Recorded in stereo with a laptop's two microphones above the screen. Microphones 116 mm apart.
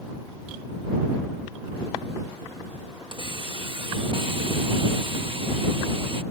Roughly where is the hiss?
Right.